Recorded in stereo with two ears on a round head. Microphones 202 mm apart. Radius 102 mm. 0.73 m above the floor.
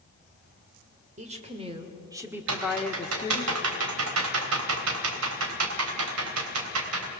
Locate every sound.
1.2 s a woman speaking: 35° right (ahead or behind), 3 m; by 3.5 s 30° left (ahead or behind), 1.7 m
2.5 s typing on a keyboard: 75° right (ahead or behind), 3.5 m